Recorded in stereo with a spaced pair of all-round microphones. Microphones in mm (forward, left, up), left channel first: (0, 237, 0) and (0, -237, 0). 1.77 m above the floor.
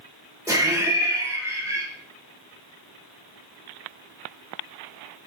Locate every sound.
0.5 s laughter: 5° right (ahead or behind), 0.9 m